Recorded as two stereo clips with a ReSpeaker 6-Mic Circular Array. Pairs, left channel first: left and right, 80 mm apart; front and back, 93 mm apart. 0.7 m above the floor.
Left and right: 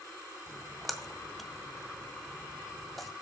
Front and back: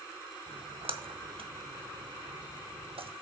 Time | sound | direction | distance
0.5 | a splash | straight behind | 0.7 m